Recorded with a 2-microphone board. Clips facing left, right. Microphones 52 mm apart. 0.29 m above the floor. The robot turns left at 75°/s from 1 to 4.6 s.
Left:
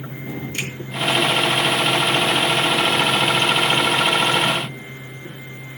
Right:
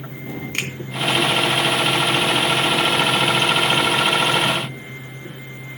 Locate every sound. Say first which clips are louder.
0.5 s a finger snap: right 3 dB; 60° right (ahead or behind), 2.5 m